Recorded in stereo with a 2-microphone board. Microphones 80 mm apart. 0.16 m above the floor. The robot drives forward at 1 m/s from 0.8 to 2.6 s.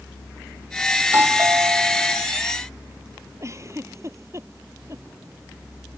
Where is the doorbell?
30° right (ahead or behind); by 2.3 s 35° right (ahead or behind).